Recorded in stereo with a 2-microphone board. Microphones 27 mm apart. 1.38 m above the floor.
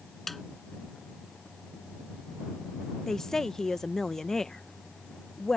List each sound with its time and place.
0.3 s a snare drum: 5° left (ahead or behind)
3.1 s a woman speaking: 20° left (ahead or behind)